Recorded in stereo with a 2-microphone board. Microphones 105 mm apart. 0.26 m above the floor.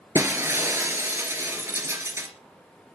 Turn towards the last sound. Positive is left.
turn(degrees=-30)  # may be behind; listen again after turning